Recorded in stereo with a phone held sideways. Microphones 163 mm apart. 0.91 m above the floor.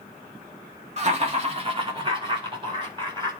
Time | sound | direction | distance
1.0 | laughter | 45° right (ahead or behind) | 2 m